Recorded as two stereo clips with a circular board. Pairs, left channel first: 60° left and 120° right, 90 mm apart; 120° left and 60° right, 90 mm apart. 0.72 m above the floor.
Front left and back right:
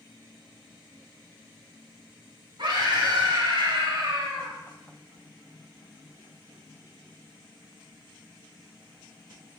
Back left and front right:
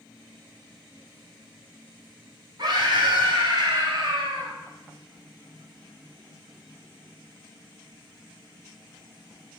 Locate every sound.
2.6 s a scream: 95° right, 3 m